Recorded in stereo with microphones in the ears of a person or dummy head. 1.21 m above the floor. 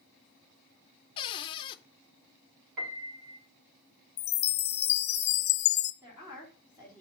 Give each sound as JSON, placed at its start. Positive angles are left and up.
{"t": 1.2, "sound": "a cupboard door", "side_deg": 25, "distance_m": 0.6}
{"t": 2.8, "sound": "a piano", "side_deg": -50, "distance_m": 2.0}
{"t": 4.2, "sound": "a chime", "side_deg": 50, "distance_m": 0.7}
{"t": 6.0, "sound": "a woman speaking", "side_deg": -15, "distance_m": 3.5}